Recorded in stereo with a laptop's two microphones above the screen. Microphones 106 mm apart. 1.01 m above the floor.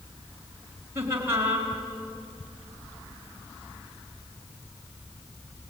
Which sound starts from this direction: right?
Laughter, at 0.9 s.